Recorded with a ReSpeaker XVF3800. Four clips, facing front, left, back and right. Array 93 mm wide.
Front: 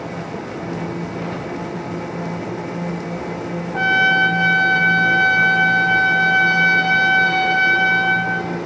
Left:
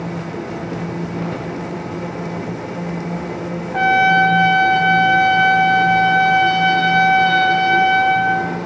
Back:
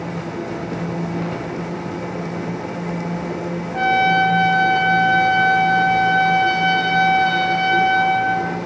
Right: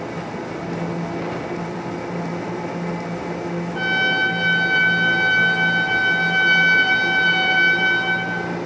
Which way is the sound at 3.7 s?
85° left.